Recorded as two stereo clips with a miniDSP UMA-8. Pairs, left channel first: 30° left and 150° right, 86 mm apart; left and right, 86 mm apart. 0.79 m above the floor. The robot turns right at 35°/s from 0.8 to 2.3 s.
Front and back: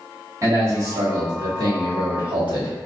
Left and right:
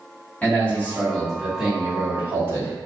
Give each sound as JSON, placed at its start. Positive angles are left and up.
{"t": 0.4, "sound": "a man speaking", "azimuth_deg": 160, "distance_m": 1.3}